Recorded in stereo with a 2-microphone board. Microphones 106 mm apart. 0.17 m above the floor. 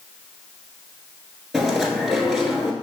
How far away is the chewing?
About 1.3 m.